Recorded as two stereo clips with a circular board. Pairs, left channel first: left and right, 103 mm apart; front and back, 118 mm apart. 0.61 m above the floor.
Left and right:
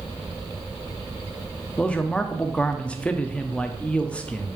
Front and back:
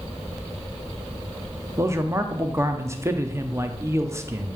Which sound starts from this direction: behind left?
A man speaking, at 1.8 s.